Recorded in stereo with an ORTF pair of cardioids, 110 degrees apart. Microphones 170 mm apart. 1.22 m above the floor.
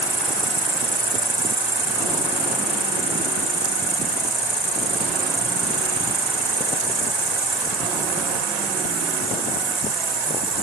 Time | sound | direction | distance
0.0 | an insect | 20° right | ?